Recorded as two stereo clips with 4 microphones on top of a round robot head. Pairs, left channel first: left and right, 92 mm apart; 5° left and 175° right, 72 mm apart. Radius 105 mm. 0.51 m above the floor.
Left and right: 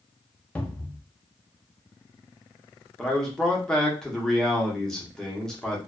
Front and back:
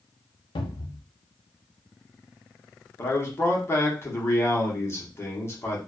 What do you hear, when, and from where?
0.6 s a cupboard door: 10° left, 0.6 m
3.0 s a man speaking: 10° left, 1.1 m